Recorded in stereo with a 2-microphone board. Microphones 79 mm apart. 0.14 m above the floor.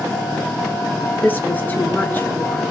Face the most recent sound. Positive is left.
turn(degrees=25)  # may be behind; listen again after turning